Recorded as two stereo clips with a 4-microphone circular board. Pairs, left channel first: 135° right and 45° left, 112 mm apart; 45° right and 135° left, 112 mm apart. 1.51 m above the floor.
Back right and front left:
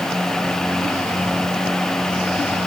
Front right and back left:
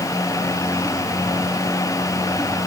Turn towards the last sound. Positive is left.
No sound to turn to.